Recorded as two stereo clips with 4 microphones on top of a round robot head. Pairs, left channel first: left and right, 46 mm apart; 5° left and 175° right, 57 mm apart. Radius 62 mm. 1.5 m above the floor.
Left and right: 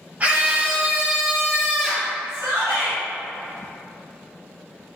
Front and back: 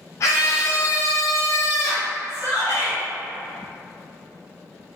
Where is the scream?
30° right, 1.6 m; by 2.1 s 15° left, 1.3 m.